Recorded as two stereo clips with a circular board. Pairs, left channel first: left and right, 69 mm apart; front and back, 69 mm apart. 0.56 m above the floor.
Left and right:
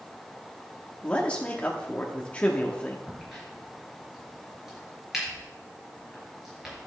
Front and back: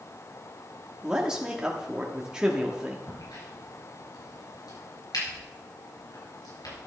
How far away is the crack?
About 4.5 m.